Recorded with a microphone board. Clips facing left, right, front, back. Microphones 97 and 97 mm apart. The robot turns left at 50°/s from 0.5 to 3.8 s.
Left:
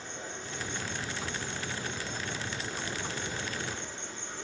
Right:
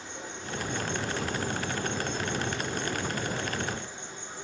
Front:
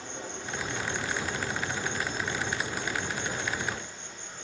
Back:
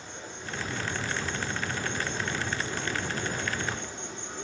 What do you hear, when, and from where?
0.0 s an insect: straight ahead, 4 m; by 4.4 s 165° right, 4 m